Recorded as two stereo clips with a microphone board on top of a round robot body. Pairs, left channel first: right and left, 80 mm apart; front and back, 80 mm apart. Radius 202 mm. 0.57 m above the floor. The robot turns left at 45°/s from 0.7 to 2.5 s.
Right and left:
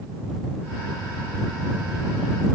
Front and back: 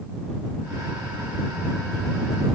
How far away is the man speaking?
I don't hear a man speaking.